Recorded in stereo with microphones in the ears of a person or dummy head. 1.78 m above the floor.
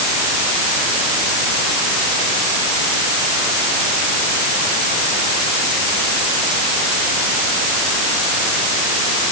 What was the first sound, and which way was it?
Only background noise.